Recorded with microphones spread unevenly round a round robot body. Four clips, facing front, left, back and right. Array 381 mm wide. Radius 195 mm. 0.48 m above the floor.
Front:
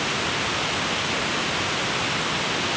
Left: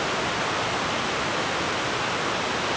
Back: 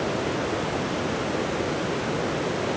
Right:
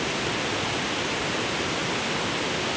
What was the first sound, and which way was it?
Only background noise.